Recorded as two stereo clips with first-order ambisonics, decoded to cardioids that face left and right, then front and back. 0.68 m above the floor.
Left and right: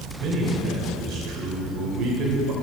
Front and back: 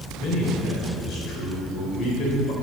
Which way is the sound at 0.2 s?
50° right.